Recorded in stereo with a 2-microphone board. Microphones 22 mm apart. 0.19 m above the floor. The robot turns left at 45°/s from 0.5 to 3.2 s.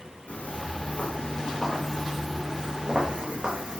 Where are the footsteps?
70° left (ahead or behind), 9 m; by 3.8 s 50° right (ahead or behind), 7 m.